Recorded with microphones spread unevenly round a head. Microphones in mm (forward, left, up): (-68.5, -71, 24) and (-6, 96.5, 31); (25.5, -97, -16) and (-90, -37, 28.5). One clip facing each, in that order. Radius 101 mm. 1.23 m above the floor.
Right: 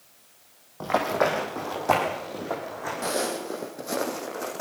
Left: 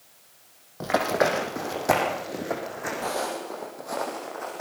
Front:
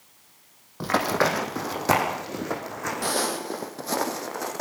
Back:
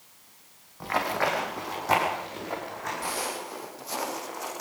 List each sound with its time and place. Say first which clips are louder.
0.8 s running footsteps: left 1 dB, front 4 dB; 5° right, 3.5 m; by 3.1 s straight ahead, 5 m
3.0 s footsteps: right 3 dB, front 9 dB; 40° right, 2.5 m; by 4.6 s 50° right, 3.5 m